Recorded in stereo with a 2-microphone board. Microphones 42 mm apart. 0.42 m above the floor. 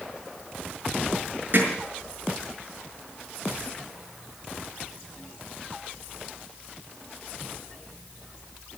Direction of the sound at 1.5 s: 50° right (ahead or behind).